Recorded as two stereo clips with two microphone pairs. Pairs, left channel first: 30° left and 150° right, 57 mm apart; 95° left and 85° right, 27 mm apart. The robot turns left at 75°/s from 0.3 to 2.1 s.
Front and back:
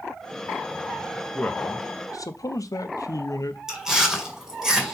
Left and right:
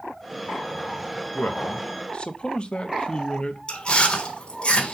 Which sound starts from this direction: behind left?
Chewing, at 3.7 s.